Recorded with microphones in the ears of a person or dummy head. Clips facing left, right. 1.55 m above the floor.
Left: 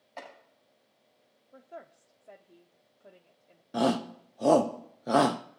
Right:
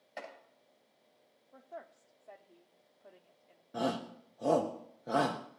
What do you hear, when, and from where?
0.2 s chopping: 15° right (ahead or behind), 9 m
1.5 s a woman speaking: 25° left (ahead or behind), 0.8 m
3.7 s a shout: 70° left (ahead or behind), 0.6 m